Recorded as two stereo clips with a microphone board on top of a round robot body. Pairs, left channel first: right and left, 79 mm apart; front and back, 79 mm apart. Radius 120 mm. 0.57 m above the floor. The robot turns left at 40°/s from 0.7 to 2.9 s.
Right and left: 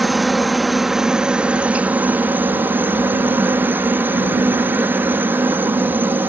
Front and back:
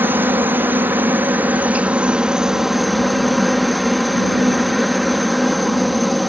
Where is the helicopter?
175° left; by 6.3 s 90° left.